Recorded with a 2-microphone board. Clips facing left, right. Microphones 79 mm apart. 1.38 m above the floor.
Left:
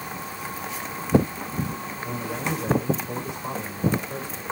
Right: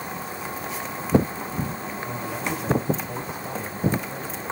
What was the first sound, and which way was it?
A man speaking, 75° left (ahead or behind).